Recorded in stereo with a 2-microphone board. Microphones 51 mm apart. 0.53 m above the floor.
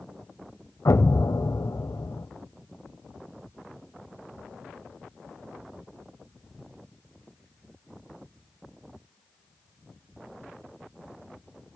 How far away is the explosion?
About 0.8 m.